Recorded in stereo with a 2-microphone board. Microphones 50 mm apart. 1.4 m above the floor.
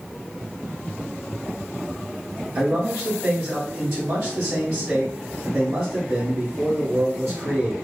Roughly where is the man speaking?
Right.